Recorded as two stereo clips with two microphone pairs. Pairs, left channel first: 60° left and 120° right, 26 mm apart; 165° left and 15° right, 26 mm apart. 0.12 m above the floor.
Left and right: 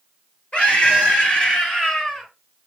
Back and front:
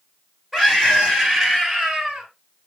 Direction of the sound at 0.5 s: 65° left.